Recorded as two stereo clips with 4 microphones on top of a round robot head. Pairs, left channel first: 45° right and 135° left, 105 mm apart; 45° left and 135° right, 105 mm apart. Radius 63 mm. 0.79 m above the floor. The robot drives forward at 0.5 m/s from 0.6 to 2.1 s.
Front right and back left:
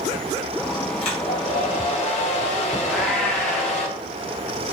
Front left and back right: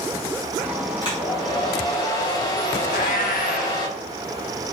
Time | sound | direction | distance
1.0 | a hair dryer | 5° right | 1.2 m
2.9 | a cat meowing | 40° left | 0.6 m